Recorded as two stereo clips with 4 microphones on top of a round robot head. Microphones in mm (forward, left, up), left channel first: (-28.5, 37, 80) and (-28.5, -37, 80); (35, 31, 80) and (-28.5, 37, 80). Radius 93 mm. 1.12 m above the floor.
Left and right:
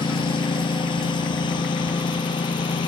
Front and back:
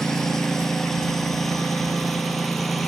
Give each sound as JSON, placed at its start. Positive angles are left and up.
{"t": 0.0, "sound": "a lawn mower", "azimuth_deg": 80}